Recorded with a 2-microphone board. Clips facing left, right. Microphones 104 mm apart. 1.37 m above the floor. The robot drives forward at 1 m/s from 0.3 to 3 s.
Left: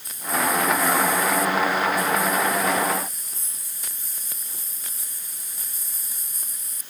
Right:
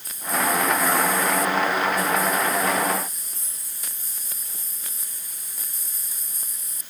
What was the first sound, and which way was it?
Only background noise.